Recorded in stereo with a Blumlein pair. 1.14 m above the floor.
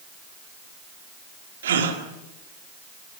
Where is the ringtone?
No ringtone in this recording.